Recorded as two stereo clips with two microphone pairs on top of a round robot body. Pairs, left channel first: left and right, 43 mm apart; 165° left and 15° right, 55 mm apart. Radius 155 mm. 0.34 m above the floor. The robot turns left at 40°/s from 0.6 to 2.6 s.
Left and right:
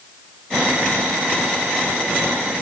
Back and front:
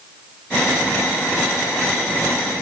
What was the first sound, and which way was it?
Only background noise.